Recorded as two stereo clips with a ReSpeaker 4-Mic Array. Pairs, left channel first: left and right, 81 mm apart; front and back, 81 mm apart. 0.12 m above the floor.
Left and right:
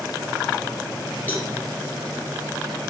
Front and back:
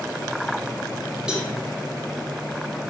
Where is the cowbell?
115° left, 1.6 m.